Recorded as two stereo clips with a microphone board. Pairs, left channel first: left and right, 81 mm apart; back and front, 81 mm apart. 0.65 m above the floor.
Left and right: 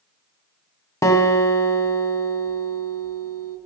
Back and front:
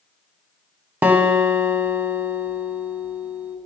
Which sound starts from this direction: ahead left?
A guitar, at 1.0 s.